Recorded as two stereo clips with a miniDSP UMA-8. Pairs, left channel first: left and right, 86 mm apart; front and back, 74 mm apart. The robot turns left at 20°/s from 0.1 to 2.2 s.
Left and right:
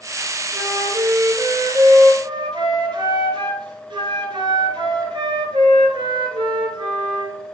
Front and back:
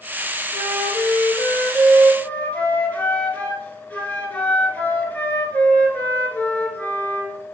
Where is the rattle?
I don't hear a rattle.